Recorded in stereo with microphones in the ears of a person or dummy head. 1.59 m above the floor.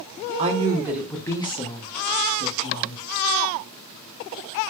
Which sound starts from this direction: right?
A woman speaking, at 0.4 s.